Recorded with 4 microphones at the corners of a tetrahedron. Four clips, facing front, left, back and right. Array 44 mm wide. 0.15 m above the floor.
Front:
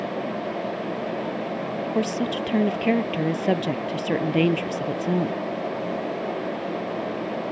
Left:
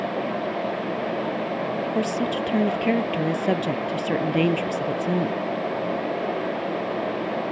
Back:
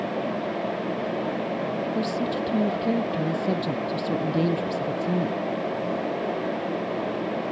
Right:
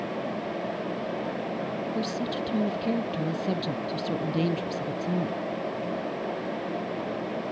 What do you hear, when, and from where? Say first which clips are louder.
1.9 s a woman speaking: left 6 dB, front 1 dB; 35° left